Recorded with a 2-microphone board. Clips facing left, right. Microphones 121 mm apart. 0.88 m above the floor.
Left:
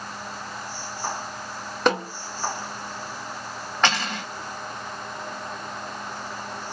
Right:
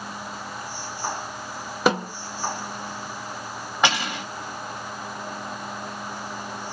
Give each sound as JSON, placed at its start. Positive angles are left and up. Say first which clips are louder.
{"t": 1.9, "sound": "a snare drum", "louder": "right 1 dB", "side_deg": -5, "distance_m": 1.5}
{"t": 3.8, "sound": "cutlery clinking", "louder": "right 1 dB", "side_deg": -10, "distance_m": 1.1}